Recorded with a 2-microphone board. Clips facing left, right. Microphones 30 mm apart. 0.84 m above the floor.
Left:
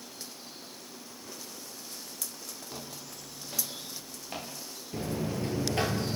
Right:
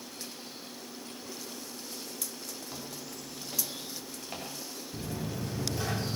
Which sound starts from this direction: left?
A buzzer, at 4.9 s.